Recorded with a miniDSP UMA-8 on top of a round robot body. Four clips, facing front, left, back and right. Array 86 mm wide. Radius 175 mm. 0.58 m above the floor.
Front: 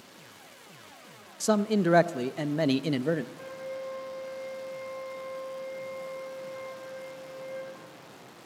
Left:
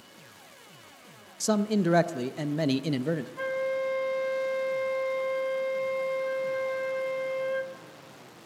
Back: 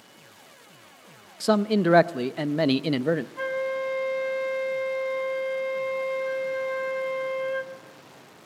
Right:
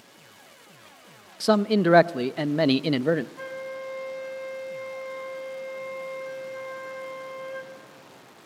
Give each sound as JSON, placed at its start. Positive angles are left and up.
{"t": 1.4, "sound": "a man speaking", "azimuth_deg": -115, "distance_m": 0.6}
{"t": 3.4, "sound": "a flute", "azimuth_deg": 160, "distance_m": 1.4}